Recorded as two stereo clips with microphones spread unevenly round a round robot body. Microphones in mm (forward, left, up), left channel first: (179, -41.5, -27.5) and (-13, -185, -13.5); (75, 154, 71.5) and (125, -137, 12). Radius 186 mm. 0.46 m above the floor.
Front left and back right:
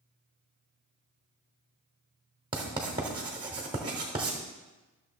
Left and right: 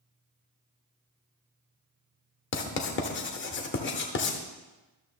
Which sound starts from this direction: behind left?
Writing, at 2.5 s.